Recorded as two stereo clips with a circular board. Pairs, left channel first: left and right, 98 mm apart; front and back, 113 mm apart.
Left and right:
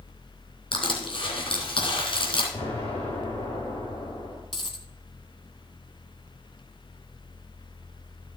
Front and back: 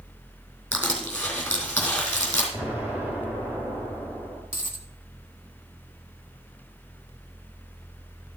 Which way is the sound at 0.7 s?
75° left.